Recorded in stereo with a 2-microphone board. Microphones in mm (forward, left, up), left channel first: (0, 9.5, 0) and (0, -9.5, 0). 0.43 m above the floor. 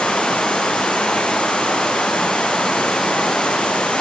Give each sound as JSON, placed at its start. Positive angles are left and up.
{"t": 0.0, "sound": "running water", "side_deg": 80, "distance_m": 5.0}